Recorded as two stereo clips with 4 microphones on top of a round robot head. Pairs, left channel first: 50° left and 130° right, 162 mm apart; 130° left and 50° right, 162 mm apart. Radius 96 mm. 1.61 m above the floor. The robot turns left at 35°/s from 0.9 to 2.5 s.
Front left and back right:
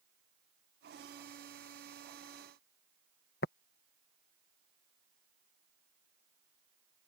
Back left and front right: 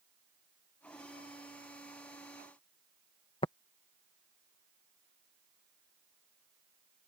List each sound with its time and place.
3.4 s tapping: 75° left